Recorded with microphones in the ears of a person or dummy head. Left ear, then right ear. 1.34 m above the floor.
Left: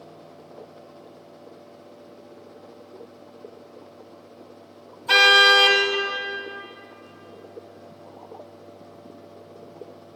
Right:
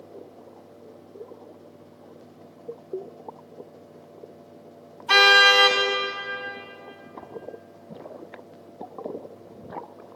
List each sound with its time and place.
5.1 s a car horn: 35° left (ahead or behind), 3.5 m